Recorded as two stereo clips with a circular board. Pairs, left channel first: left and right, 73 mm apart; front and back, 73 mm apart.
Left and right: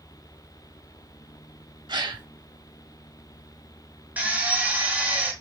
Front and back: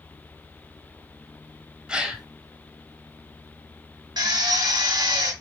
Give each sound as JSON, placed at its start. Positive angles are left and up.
{"t": 1.9, "sound": "a gasp", "azimuth_deg": -105, "distance_m": 0.6}
{"t": 4.2, "sound": "a drill", "azimuth_deg": -160, "distance_m": 1.0}